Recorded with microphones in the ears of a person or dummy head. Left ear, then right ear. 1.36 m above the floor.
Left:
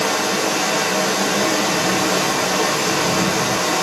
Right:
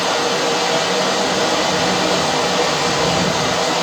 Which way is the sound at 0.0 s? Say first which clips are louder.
Right 2 dB; 65° right (ahead or behind).